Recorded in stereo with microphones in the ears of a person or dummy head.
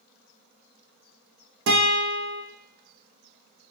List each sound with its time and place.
1.7 s a guitar: 65° right (ahead or behind), 0.9 m